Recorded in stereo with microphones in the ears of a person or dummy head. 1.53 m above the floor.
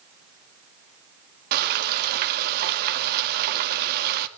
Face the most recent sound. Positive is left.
turn(degrees=-60)  # may be behind; listen again after turning